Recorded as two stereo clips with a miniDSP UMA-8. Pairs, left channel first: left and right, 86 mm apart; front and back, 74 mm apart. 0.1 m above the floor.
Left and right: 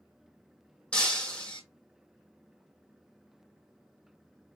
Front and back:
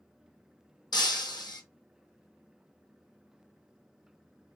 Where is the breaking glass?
15° left, 1.1 m.